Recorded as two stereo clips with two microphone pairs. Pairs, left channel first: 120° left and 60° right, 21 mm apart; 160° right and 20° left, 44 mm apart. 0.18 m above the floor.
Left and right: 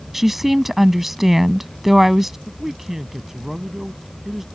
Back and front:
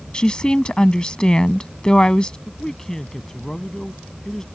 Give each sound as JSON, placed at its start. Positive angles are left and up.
{"t": 0.1, "sound": "a woman speaking", "azimuth_deg": -125}
{"t": 2.5, "sound": "a man speaking", "azimuth_deg": -100}